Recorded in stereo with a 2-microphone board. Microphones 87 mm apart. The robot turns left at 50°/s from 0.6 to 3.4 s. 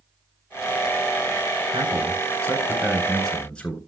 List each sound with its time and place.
1.7 s a man speaking: 105° right, 3.5 m; by 3.8 s 175° left, 3.5 m